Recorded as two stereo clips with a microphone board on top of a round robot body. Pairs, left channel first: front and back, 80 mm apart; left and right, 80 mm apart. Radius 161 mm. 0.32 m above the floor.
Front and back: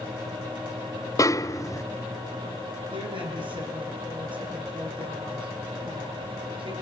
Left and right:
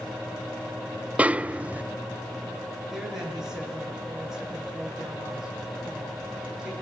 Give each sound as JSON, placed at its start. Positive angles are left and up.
{"t": 1.2, "sound": "a snare drum", "azimuth_deg": -25, "distance_m": 0.6}
{"t": 2.9, "sound": "a woman speaking", "azimuth_deg": -175, "distance_m": 8.0}